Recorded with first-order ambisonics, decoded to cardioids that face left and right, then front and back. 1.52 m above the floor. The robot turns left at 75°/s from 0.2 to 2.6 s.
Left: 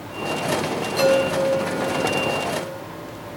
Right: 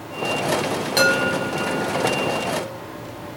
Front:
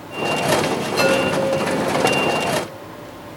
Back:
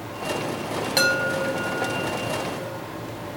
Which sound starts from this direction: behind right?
A chime, at 1.0 s.